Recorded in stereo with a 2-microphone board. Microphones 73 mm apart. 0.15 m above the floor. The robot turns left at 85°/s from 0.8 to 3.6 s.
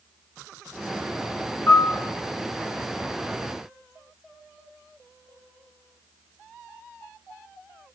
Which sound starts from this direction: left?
A piano, at 1.7 s.